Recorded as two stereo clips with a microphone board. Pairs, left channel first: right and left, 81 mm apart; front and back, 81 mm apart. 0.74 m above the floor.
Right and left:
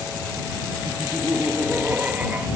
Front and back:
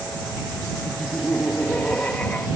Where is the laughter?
45° left.